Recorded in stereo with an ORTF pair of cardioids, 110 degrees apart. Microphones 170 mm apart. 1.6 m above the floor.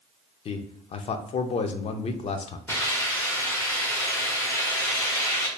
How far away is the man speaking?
About 0.5 m.